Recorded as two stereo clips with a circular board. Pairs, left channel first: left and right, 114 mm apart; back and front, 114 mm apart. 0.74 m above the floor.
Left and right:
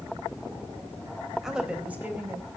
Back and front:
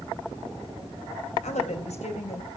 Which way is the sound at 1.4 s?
175° right.